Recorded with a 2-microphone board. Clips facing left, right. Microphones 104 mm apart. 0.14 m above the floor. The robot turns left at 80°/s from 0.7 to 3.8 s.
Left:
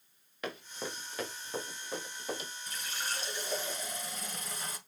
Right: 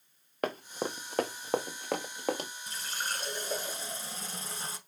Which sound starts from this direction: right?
Running footsteps, at 0.4 s.